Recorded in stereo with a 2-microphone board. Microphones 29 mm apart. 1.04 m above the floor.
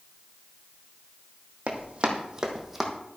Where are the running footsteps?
50° right (ahead or behind), 1.8 m; by 2.9 s 5° right (ahead or behind), 1.8 m.